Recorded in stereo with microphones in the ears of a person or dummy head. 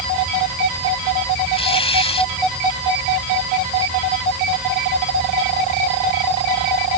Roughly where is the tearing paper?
Left.